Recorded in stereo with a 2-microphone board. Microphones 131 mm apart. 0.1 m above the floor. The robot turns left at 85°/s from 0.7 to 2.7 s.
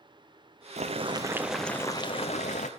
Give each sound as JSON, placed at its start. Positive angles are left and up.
{"t": 0.8, "sound": "boiling", "azimuth_deg": -110, "distance_m": 0.5}